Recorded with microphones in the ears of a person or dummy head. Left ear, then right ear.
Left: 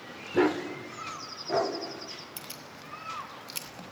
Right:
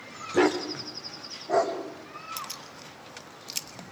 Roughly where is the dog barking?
Centre.